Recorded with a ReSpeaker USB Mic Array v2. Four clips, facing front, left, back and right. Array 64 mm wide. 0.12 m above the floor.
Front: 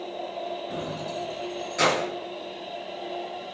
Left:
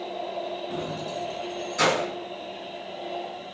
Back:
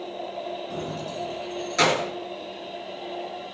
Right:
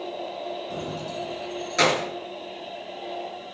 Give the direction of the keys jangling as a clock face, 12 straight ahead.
11 o'clock.